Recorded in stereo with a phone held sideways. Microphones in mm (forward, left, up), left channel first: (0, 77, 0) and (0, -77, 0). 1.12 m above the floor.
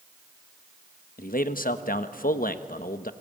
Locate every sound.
1.2 s a man speaking: 80° left, 1.2 m